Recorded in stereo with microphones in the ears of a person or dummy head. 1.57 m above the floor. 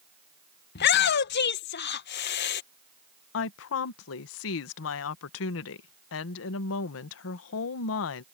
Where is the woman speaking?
65° left (ahead or behind).